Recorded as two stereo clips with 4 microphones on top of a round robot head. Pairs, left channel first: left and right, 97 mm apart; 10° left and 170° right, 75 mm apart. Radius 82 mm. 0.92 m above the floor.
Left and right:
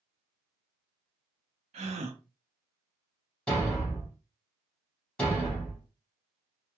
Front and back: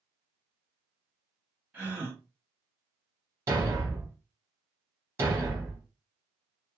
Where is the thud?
170° left, 0.8 m.